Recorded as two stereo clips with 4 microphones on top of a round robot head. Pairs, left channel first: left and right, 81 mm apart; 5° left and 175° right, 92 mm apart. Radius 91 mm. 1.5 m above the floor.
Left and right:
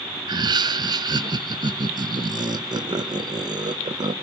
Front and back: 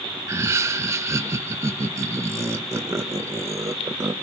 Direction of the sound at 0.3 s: 115° right.